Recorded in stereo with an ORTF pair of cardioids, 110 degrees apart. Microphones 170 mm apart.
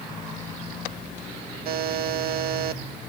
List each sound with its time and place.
1.6 s a buzzer: 70° right, 0.9 m